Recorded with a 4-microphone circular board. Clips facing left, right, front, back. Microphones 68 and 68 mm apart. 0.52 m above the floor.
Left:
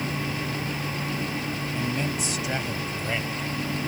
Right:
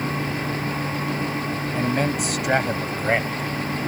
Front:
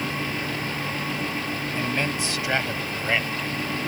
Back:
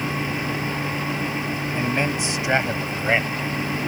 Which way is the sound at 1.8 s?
105° right.